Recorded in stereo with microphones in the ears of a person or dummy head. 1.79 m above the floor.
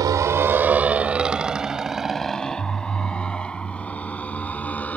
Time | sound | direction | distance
0.0 | a motorcycle | 20° right (ahead or behind) | ?